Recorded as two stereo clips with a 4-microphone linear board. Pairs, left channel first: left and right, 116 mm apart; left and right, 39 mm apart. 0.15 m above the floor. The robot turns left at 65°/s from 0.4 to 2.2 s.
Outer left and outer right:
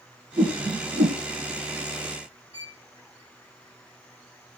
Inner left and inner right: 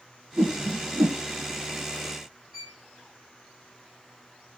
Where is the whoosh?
30° right (ahead or behind), 2.5 m; by 1.2 s 65° right (ahead or behind), 2.5 m.